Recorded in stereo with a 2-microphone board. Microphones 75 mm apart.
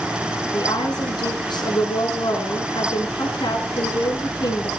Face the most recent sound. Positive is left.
turn(degrees=80)